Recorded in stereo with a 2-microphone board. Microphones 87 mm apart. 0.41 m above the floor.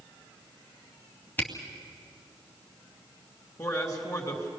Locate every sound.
1.4 s a camera shutter: 20° left (ahead or behind), 2 m
3.6 s a man speaking: 40° left (ahead or behind), 3.5 m